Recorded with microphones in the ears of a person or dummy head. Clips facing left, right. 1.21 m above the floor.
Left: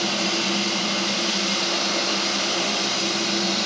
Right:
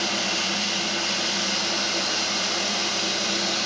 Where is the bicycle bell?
No bicycle bell in this recording.